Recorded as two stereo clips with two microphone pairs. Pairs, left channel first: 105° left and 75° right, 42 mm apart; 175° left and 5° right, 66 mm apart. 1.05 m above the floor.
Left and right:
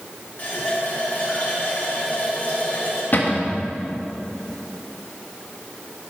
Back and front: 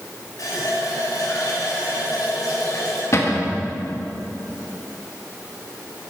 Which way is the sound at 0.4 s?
155° left.